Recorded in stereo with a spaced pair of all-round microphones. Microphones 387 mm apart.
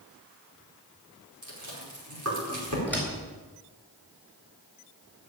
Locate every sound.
1.4 s chewing: 50° right (ahead or behind), 5 m
2.9 s a door slam: 5° left (ahead or behind), 4.5 m